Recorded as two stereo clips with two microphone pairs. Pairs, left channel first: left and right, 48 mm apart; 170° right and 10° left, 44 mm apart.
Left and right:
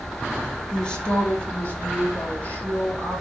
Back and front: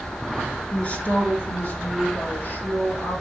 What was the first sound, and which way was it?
A man speaking, 150° left.